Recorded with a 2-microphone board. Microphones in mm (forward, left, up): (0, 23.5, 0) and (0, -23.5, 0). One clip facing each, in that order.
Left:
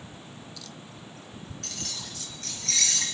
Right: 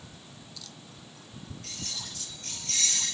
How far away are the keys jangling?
About 3.5 m.